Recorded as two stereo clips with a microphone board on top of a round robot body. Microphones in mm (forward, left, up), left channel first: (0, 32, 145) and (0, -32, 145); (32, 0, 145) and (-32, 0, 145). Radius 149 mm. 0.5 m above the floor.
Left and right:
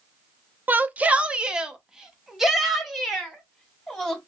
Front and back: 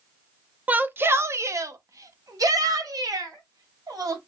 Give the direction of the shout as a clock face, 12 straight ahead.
4 o'clock.